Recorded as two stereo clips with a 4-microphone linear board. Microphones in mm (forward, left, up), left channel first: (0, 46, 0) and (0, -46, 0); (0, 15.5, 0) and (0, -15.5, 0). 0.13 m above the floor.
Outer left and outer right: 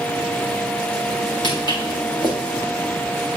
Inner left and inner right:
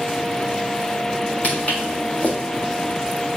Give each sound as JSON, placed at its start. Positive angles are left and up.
{"t": 1.4, "sound": "footsteps", "side_deg": 55, "distance_m": 5.5}